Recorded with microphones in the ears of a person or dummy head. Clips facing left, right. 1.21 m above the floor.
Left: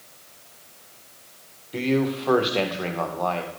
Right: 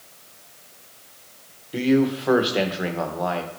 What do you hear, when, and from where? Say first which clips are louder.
1.7 s a man speaking: right 4 dB; 15° right (ahead or behind), 0.8 m